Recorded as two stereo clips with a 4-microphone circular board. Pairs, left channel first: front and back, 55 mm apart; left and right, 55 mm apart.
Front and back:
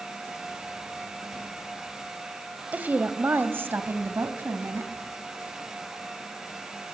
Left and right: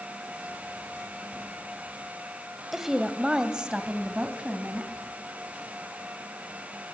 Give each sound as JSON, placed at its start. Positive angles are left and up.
{"t": 2.7, "sound": "a woman speaking", "azimuth_deg": -170, "distance_m": 1.1}